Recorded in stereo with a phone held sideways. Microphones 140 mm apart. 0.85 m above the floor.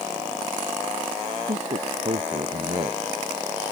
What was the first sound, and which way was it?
A man speaking, 50° right (ahead or behind).